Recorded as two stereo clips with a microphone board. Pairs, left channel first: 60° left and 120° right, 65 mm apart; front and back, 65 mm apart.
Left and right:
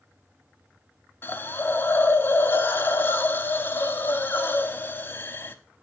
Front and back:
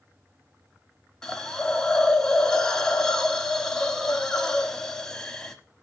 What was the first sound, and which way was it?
A hiss, 70° left.